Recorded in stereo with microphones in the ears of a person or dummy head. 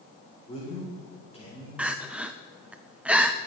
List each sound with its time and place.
0.5 s a man speaking: 35° left (ahead or behind), 4.5 m
1.8 s crying: 5° right (ahead or behind), 0.6 m